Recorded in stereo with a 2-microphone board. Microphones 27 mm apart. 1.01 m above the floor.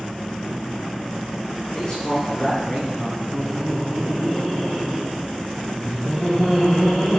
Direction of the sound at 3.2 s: 10° left (ahead or behind).